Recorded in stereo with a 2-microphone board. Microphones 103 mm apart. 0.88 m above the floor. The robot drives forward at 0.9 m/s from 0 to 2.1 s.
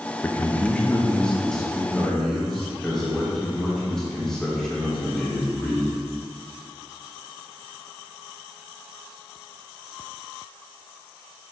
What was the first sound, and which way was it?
A man speaking, 20° left (ahead or behind).